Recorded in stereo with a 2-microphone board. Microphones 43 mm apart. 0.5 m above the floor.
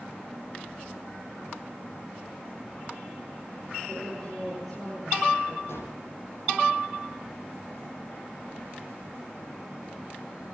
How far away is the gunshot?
About 6 m.